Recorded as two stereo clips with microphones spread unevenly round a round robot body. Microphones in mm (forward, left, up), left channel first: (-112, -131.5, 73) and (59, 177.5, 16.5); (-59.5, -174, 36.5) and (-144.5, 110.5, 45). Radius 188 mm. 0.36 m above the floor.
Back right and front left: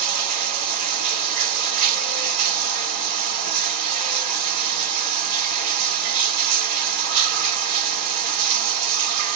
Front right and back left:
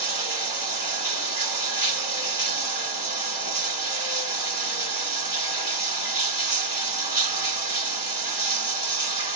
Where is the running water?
25° left, 2 m.